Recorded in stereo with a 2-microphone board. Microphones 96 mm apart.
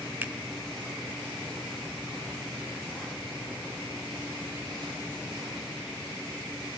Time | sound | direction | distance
0.2 | a finger snap | 20° right (ahead or behind) | 1.1 m